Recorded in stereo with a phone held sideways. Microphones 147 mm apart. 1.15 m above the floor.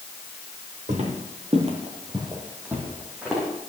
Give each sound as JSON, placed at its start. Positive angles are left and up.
{"t": 0.9, "sound": "footsteps", "side_deg": -50, "distance_m": 2.0}